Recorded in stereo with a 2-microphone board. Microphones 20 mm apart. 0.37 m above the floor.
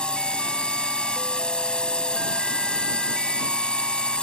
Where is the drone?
60° left (ahead or behind).